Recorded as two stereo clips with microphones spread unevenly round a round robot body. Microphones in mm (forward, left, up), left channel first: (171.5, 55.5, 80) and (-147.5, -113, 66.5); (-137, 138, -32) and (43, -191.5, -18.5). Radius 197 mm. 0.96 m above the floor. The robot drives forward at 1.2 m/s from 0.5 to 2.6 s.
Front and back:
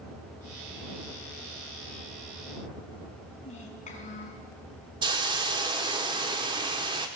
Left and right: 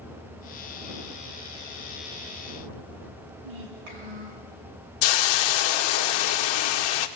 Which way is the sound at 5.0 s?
130° left.